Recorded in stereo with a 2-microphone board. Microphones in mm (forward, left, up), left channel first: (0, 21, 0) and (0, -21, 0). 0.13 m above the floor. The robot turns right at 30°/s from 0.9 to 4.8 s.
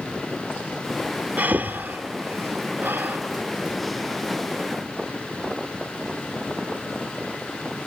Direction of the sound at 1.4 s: 50° right (ahead or behind).